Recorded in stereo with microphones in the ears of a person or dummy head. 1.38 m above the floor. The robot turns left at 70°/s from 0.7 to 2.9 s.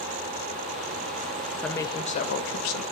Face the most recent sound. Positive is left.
turn(degrees=85)